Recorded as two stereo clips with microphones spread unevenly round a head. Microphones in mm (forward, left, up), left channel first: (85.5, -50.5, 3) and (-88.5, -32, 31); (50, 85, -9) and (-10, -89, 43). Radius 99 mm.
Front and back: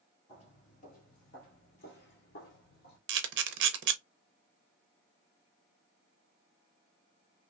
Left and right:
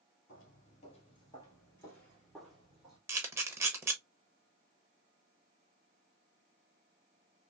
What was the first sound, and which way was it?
Footsteps, 45° left.